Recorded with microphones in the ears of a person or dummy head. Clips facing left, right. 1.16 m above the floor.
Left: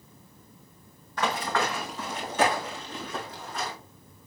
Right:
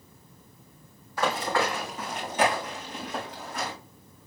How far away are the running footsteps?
About 3 m.